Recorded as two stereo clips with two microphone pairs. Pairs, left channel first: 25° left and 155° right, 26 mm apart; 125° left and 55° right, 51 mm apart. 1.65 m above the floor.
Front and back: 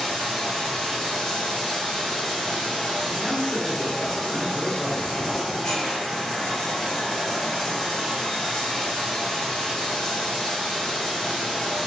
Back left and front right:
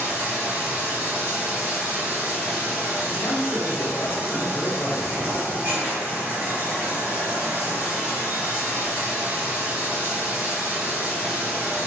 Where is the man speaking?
130° left, 0.8 m.